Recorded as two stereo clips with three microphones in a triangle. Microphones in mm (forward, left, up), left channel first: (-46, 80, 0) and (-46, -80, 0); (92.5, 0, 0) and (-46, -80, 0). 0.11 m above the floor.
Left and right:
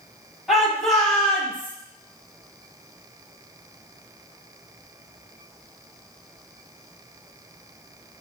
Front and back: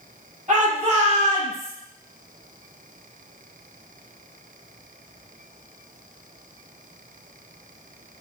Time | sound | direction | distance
0.5 | a shout | 175° right | 2.5 m